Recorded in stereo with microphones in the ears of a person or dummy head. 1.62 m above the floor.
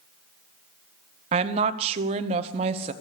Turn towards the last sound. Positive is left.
turn(degrees=-30)  # may be behind; listen again after turning